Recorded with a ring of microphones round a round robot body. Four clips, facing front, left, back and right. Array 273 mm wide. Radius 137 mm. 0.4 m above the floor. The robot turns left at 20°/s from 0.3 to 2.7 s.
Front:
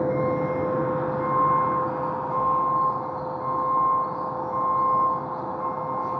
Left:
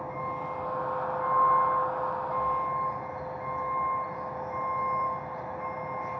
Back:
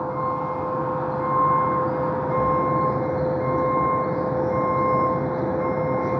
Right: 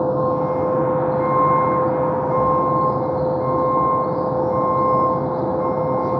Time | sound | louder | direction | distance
0.0 | a vehicle | right 15 dB, front 2 dB | 65° right | ?